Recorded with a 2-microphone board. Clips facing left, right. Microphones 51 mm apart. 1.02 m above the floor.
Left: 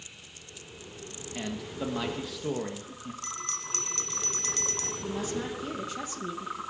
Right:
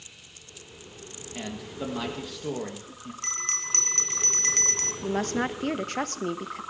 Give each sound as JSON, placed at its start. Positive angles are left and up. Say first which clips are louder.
{"t": 1.4, "sound": "a man speaking", "louder": "even", "side_deg": 0, "distance_m": 1.5}
{"t": 3.2, "sound": "a bell", "louder": "right 5 dB", "side_deg": -50, "distance_m": 1.1}
{"t": 5.0, "sound": "a woman speaking", "louder": "right 7 dB", "side_deg": -60, "distance_m": 1.0}